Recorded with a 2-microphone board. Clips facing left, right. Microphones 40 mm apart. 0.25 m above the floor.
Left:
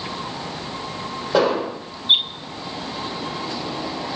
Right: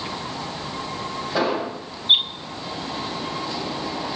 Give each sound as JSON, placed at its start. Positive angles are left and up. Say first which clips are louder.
{"t": 1.3, "sound": "an explosion", "louder": "left 5 dB", "side_deg": 75, "distance_m": 3.5}